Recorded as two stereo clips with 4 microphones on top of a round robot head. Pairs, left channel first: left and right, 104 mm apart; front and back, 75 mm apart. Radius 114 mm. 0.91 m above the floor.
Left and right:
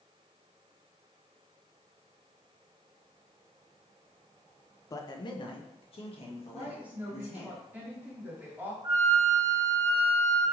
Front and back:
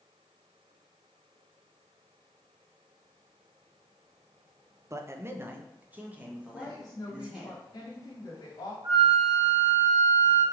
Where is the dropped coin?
I don't hear a dropped coin.